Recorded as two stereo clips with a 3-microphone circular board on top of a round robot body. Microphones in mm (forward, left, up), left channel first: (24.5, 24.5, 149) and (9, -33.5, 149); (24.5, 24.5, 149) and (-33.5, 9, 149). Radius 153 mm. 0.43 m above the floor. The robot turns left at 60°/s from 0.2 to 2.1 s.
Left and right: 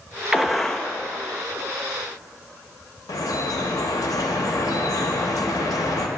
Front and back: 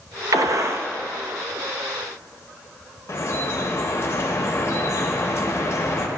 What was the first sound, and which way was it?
A gunshot, straight behind.